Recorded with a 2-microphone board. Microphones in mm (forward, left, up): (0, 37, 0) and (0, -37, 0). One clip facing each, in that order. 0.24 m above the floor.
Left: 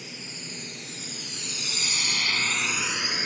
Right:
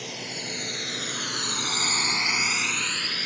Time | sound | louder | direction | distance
0.0 | a drone | right 6 dB | 65° right (ahead or behind) | ?